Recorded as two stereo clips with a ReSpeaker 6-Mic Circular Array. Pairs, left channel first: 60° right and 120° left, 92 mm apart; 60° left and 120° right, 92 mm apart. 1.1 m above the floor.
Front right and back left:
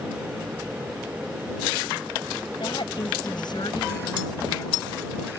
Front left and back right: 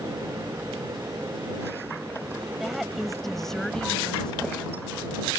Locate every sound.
2.6 s a woman speaking: 30° right; by 5.0 s 15° right